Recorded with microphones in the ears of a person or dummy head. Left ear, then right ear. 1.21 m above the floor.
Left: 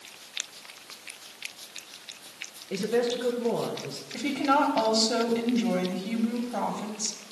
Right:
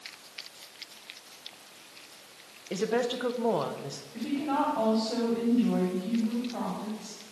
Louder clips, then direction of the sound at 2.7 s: Left 2 dB; 40° right (ahead or behind).